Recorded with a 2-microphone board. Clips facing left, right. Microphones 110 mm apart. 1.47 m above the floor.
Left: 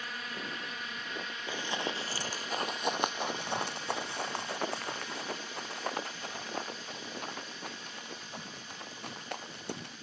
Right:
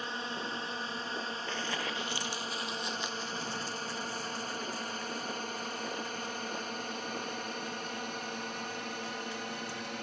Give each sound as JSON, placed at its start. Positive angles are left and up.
{"t": 0.0, "sound": "a drone", "side_deg": -25}
{"t": 1.5, "sound": "running footsteps", "side_deg": 10}